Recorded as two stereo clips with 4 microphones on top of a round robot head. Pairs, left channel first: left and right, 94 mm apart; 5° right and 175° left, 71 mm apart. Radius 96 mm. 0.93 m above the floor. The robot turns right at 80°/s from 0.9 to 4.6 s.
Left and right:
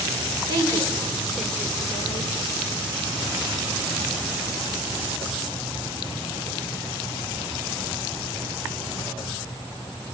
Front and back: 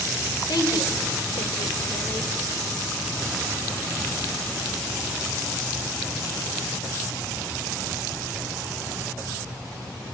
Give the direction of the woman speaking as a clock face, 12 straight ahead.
1 o'clock.